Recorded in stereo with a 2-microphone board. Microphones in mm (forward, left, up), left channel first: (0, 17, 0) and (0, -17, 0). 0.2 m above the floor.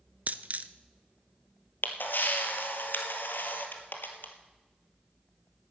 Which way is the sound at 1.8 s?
75° left (ahead or behind).